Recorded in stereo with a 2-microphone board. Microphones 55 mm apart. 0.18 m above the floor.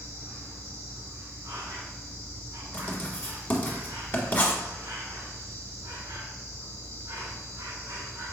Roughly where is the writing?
Left.